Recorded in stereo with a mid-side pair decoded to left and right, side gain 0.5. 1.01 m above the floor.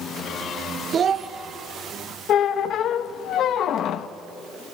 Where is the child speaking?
45° right, 0.6 m.